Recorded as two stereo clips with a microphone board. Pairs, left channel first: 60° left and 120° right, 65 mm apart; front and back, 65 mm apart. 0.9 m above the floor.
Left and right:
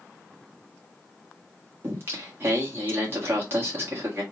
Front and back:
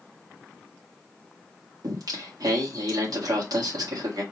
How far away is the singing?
About 1.8 m.